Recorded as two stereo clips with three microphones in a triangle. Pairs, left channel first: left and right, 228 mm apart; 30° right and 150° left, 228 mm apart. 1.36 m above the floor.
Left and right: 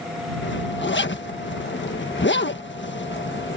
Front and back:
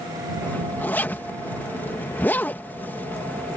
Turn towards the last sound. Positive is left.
turn(degrees=50)